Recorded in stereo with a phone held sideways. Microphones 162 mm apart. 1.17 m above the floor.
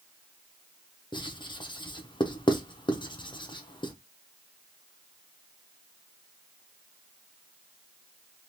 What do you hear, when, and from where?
1.1 s writing: 30° left (ahead or behind), 0.5 m